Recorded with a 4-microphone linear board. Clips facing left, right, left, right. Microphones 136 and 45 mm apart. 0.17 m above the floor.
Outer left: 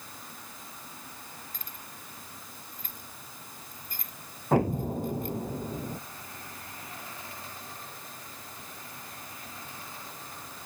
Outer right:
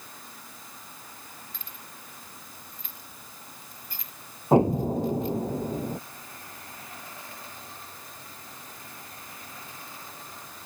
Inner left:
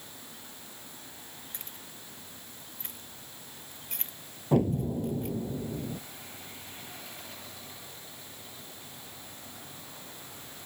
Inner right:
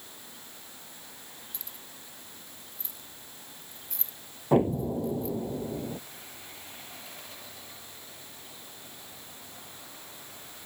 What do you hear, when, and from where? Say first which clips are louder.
1.5 s keys jangling: even, inner left 1 dB; 45° left (ahead or behind); by 5.4 s 50° left (ahead or behind)
4.5 s an explosion: outer right 5 dB, inner right 2 dB; 25° right (ahead or behind)